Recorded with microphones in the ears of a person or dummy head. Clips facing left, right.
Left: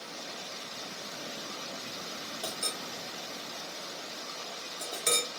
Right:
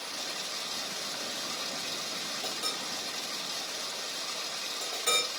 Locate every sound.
0.0 s running water: 45° right (ahead or behind), 0.9 m
2.4 s a clink: 50° left (ahead or behind), 1.2 m